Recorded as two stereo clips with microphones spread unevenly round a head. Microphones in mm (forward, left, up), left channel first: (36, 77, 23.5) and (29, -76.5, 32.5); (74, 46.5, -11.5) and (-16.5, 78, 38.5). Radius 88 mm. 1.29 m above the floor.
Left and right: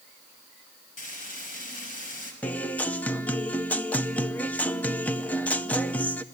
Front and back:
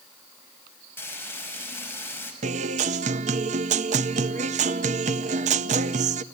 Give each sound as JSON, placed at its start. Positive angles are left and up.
{"t": 1.0, "sound": "frying", "azimuth_deg": 50, "distance_m": 6.0}
{"t": 2.4, "sound": "a guitar", "azimuth_deg": 170, "distance_m": 0.5}